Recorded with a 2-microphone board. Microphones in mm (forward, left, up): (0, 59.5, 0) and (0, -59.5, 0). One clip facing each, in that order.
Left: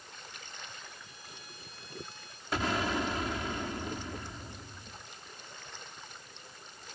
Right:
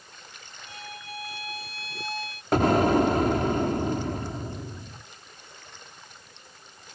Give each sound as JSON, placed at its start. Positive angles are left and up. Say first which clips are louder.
{"t": 0.7, "sound": "a violin", "louder": "right 9 dB", "side_deg": -85}
{"t": 2.5, "sound": "an explosion", "louder": "right 12 dB", "side_deg": -55}